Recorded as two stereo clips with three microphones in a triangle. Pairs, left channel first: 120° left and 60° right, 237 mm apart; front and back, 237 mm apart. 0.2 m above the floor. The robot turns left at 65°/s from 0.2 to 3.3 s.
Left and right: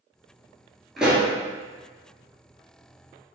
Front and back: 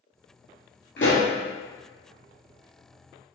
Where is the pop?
30° left, 1.5 m; by 1.3 s 10° left, 1.5 m.